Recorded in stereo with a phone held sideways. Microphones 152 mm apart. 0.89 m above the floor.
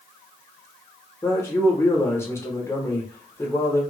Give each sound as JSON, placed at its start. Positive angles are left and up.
{"t": 1.2, "sound": "a man speaking", "side_deg": 15, "distance_m": 0.7}